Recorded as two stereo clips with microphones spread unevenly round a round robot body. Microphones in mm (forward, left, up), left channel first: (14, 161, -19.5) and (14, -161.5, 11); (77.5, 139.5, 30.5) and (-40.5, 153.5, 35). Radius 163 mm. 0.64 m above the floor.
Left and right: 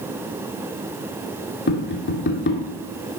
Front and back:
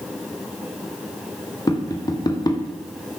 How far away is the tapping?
About 2 m.